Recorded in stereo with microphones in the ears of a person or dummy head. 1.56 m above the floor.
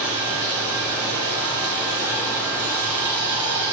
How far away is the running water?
About 1.5 m.